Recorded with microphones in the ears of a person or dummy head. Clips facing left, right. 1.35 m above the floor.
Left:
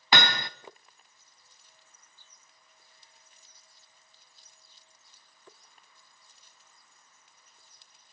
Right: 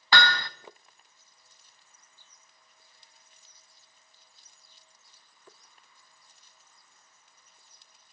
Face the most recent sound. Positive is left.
turn(degrees=20)  # may be behind; listen again after turning